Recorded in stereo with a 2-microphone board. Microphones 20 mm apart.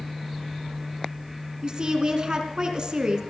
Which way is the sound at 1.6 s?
40° right (ahead or behind).